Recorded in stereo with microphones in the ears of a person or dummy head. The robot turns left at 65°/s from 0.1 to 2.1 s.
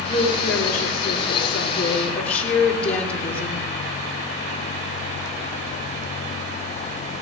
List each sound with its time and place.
0.1 s a woman speaking: 130° left, 3 m; by 3.7 s straight ahead, 3 m